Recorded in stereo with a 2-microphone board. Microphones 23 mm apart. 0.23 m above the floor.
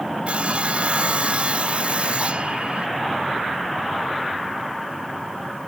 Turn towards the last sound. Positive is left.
turn(degrees=-55)  # may be behind; listen again after turning